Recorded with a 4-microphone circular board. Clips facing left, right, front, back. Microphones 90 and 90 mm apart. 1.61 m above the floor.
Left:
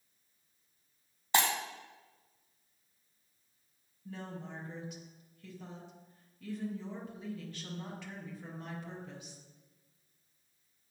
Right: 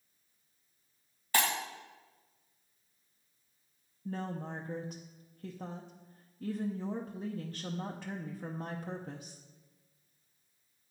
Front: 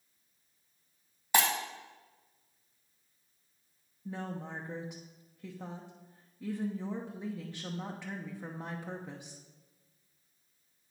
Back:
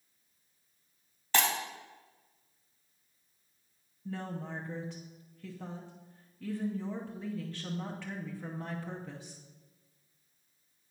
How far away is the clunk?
No clunk in this recording.